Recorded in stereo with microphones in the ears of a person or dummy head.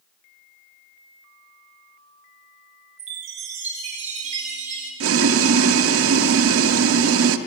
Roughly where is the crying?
I don't hear crying.